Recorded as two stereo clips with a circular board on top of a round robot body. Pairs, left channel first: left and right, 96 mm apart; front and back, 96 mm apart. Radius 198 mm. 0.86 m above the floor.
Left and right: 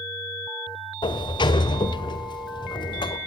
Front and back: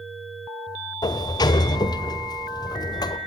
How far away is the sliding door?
About 1.5 m.